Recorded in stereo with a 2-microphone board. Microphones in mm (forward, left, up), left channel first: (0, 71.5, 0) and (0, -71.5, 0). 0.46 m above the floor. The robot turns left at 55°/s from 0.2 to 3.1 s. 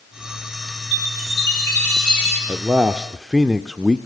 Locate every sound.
0.9 s a chime: 55° left, 9 m; by 2.4 s 25° right, 9 m
2.5 s a man speaking: 140° right, 0.8 m; by 4.1 s 175° right, 0.8 m